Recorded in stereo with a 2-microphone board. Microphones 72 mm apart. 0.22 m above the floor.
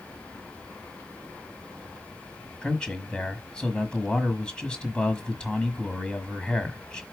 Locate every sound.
2.6 s a man speaking: 10° left (ahead or behind), 1.4 m